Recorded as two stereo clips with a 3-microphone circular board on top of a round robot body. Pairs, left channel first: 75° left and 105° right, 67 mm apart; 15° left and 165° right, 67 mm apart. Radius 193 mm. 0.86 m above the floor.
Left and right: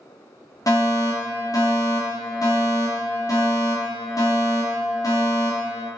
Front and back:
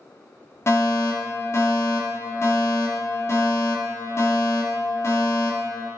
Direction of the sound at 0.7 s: 60° left.